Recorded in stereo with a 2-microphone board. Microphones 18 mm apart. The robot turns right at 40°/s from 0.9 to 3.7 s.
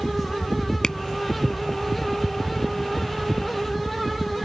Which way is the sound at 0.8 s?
30° left (ahead or behind).